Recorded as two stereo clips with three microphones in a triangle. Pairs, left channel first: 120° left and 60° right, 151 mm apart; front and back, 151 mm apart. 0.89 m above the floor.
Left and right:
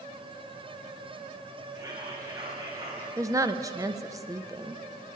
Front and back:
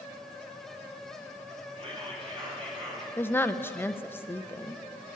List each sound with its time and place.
1.8 s whispering: 130° right, 6 m
3.2 s a woman speaking: 50° right, 0.7 m